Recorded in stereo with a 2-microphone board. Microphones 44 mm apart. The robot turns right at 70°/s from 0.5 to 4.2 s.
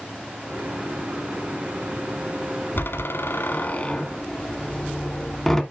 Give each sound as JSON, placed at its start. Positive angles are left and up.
{"t": 2.8, "sound": "a door slam", "side_deg": 55, "distance_m": 1.5}